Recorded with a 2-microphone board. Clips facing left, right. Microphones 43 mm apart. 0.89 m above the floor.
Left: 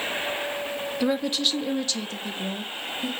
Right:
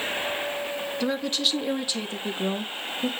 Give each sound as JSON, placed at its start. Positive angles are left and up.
{"t": 1.0, "sound": "a woman speaking", "side_deg": 10, "distance_m": 1.6}